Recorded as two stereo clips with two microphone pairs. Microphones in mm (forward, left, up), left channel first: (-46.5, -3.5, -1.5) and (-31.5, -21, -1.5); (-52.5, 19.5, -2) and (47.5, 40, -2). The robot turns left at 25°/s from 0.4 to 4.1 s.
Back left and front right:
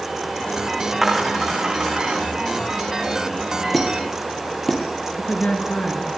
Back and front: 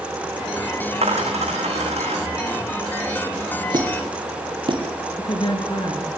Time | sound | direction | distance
1.0 | a dropped coin | 30° left | 6.5 m
3.7 | a squeak | 60° left | 5 m
5.2 | a woman speaking | 155° left | 4 m